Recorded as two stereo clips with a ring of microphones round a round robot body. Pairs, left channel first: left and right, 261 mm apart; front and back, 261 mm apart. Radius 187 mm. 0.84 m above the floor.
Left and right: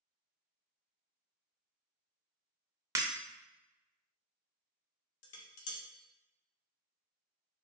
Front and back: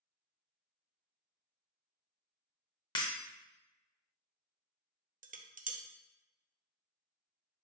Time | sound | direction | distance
3.0 | breaking glass | 40° right | 0.5 m
5.2 | dishes clattering | 120° left | 0.6 m